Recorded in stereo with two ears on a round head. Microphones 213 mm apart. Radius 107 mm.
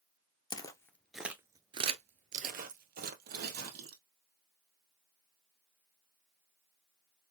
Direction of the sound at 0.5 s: 20° left (ahead or behind).